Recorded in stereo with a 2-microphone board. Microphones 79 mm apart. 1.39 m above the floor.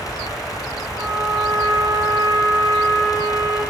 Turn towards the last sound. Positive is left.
turn(degrees=-45)  # may be behind; listen again after turning